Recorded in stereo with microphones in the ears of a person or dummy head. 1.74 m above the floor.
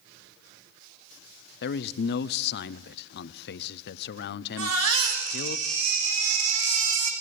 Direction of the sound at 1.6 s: 60° left (ahead or behind).